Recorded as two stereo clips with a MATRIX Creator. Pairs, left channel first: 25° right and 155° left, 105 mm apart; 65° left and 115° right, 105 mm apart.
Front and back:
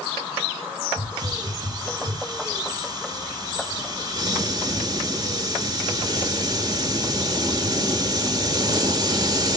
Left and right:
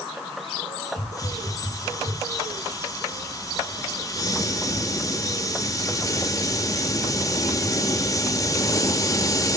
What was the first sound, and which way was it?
A hiss, 115° left.